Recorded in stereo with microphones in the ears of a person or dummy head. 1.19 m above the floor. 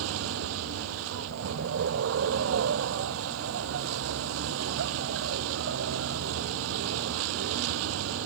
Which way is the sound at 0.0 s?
70° right (ahead or behind).